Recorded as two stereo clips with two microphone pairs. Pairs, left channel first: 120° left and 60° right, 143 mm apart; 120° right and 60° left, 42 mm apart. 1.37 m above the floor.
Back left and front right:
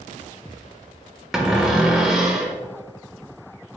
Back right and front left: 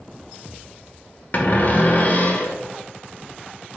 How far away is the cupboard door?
About 0.5 m.